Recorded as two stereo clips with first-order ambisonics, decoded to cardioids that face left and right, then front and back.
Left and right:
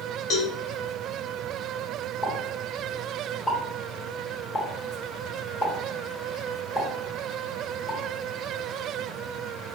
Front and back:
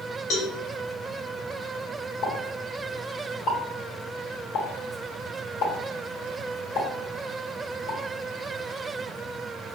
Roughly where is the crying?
No crying in this recording.